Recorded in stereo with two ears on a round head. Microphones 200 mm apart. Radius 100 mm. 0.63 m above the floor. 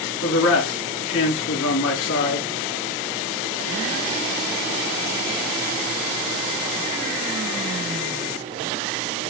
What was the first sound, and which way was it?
A man speaking, 65° left (ahead or behind).